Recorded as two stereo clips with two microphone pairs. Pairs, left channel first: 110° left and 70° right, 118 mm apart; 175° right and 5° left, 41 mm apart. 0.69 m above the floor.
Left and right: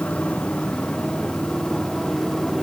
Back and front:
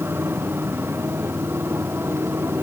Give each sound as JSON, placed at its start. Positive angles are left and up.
{"t": 0.0, "sound": "a motorcycle", "azimuth_deg": 30}